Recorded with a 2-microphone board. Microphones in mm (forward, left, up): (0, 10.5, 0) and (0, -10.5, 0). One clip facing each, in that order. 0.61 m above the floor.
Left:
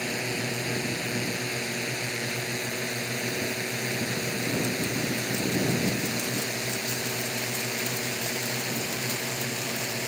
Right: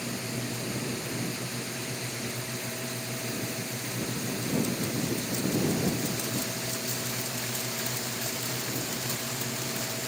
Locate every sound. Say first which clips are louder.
0.0 s a drone: left 5 dB; 85° left; by 10.1 s 50° left (ahead or behind)